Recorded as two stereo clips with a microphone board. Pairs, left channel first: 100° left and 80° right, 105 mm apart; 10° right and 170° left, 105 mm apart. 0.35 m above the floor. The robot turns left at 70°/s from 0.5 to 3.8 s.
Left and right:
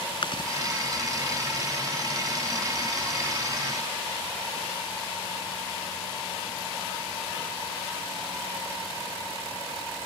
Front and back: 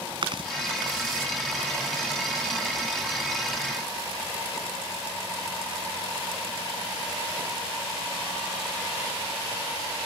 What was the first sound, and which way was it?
Chewing, 135° left.